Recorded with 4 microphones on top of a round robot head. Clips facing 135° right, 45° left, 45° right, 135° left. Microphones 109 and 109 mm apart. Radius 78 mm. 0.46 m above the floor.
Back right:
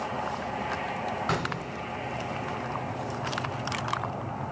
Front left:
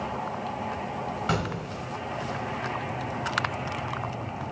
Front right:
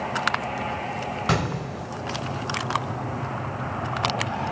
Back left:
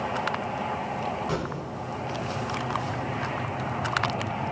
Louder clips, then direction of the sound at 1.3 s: Front left 1 dB, front right 4 dB; 45° right.